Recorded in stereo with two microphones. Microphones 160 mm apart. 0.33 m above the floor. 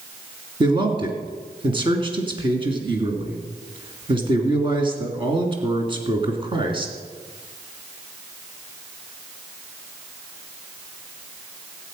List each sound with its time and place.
0.6 s a man speaking: 30° right (ahead or behind), 3 m